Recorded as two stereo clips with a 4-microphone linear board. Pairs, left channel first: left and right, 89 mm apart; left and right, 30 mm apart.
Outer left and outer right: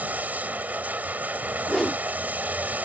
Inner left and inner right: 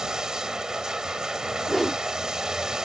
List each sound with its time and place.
0.0 s running water: 20° right (ahead or behind)
1.7 s a whoosh: 5° left (ahead or behind)